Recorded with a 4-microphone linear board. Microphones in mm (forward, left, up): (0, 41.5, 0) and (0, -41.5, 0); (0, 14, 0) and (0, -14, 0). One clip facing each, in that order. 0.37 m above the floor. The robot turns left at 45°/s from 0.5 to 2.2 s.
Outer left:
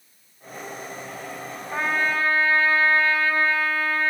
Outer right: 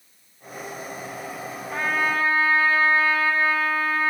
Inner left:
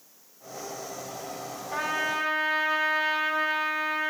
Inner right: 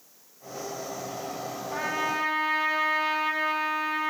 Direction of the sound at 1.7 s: 5° left (ahead or behind).